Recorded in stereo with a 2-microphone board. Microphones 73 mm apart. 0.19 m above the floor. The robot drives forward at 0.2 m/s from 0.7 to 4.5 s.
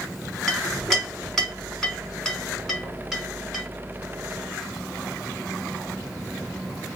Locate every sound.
0.5 s a clink: 5° left (ahead or behind), 1.0 m